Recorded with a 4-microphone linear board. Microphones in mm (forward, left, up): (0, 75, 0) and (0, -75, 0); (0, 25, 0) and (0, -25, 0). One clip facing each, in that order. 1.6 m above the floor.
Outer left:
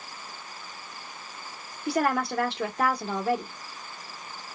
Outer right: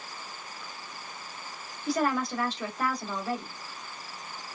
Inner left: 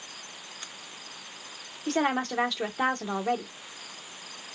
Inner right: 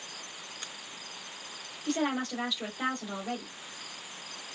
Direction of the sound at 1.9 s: 65° left (ahead or behind).